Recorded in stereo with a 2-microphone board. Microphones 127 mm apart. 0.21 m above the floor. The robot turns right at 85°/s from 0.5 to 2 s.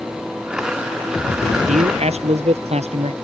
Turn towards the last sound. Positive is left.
turn(degrees=-55)  # may be behind; listen again after turning